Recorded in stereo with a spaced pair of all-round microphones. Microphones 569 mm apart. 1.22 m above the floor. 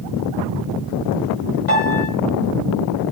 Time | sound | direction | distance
1.7 | a piano | 75° left (ahead or behind) | 6 m